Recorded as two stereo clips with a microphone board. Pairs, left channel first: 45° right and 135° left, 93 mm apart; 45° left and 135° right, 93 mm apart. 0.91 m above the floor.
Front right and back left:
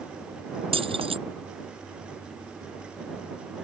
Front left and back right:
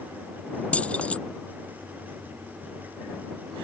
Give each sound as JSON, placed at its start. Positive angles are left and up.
{"t": 0.7, "sound": "keys jangling", "azimuth_deg": 120}